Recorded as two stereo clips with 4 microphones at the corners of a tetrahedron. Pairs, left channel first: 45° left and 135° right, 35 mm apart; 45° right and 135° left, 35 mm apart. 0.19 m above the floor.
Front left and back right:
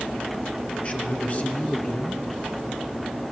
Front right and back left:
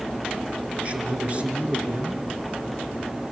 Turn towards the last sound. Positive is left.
turn(degrees=85)